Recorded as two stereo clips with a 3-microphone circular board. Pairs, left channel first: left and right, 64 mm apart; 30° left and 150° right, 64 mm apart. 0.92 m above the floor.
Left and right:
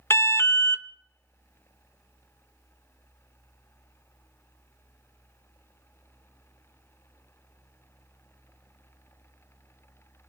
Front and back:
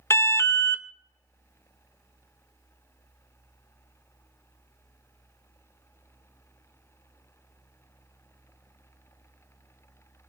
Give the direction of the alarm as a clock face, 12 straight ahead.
10 o'clock.